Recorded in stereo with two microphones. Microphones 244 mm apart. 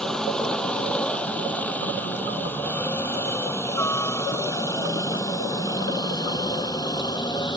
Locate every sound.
0.0 s a helicopter: centre (ahead or behind); by 7.6 s 15° left (ahead or behind)